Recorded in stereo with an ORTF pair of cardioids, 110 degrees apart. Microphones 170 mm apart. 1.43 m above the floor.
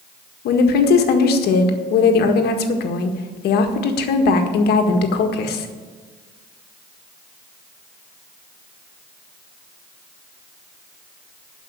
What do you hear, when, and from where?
0.5 s a woman speaking: 70° left, 1.8 m